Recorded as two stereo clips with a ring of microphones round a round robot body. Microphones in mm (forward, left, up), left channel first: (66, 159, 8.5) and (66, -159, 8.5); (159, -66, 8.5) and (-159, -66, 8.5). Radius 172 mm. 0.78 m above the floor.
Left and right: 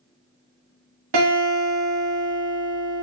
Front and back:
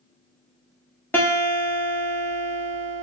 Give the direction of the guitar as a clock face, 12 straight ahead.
3 o'clock.